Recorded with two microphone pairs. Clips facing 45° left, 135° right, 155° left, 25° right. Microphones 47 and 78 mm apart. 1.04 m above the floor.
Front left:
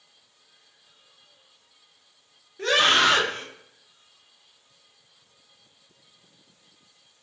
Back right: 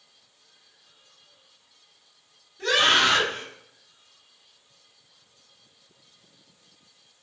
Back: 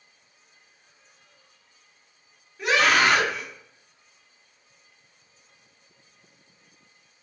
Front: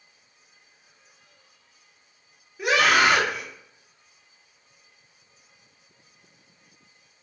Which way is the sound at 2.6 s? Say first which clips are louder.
Front left 1 dB, front 1 dB; 55° left.